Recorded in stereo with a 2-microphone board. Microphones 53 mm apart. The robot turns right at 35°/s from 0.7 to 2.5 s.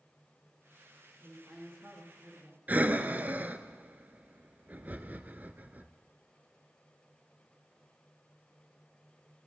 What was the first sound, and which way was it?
A woman speaking, 65° right.